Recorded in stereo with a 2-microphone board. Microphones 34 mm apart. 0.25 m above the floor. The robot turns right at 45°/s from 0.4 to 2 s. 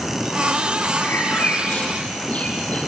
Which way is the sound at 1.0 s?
90° left.